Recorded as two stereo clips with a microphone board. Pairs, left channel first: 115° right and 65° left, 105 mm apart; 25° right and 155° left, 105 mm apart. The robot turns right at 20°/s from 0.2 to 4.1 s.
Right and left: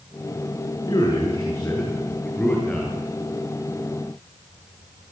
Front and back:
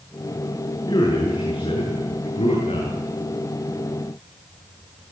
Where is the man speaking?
65° right, 8.5 m; by 3.0 s 25° right, 8.5 m.